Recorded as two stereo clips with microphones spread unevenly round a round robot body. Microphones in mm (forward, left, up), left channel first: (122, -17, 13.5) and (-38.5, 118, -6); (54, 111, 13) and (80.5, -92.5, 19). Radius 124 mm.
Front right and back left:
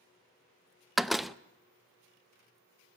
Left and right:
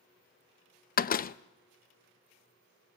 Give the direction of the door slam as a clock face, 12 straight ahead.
10 o'clock.